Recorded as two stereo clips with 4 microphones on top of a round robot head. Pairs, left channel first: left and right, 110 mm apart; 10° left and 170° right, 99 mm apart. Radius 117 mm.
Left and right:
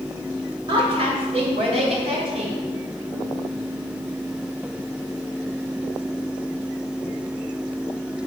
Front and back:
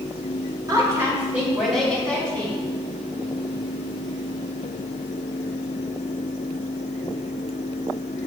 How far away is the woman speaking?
About 2 m.